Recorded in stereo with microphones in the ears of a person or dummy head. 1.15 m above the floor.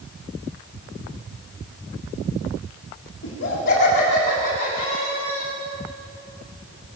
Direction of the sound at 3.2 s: 60° left (ahead or behind).